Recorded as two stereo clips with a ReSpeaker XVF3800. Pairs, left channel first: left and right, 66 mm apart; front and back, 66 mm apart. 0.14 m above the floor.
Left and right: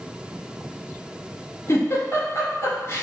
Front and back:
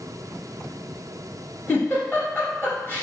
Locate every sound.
1.7 s a giggle: 50° left, 1.7 m